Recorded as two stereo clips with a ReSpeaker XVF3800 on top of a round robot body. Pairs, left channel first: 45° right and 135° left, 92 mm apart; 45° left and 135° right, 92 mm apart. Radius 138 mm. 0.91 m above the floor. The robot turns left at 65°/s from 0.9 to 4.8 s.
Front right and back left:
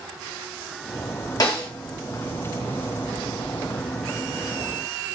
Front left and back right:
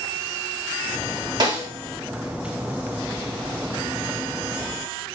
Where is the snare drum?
90° right, 1.9 m; by 1.7 s 110° right, 1.9 m.